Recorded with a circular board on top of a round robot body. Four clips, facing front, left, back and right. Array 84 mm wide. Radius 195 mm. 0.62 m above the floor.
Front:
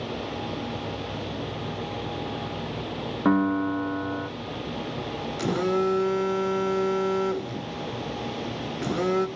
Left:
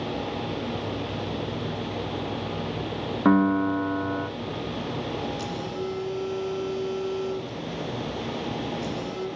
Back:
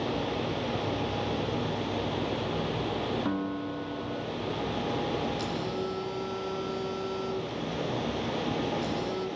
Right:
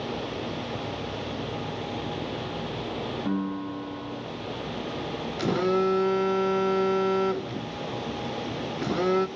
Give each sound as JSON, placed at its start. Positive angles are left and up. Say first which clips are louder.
{"t": 3.2, "sound": "a piano", "louder": "left 13 dB, front 9 dB", "azimuth_deg": 60, "distance_m": 0.7}
{"t": 5.4, "sound": "a phone buzzing", "louder": "right 7 dB, front 8 dB", "azimuth_deg": -50, "distance_m": 0.7}